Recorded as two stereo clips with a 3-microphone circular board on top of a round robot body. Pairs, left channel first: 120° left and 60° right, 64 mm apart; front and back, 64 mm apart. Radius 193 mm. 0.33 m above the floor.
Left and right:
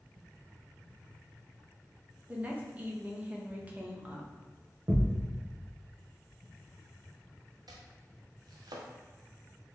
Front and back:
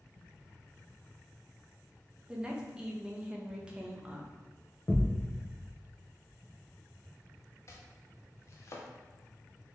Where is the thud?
45° right, 1.0 m.